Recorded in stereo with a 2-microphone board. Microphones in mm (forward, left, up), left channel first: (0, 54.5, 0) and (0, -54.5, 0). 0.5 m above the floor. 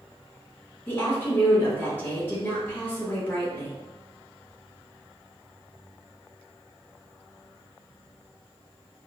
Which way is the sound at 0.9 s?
20° left (ahead or behind).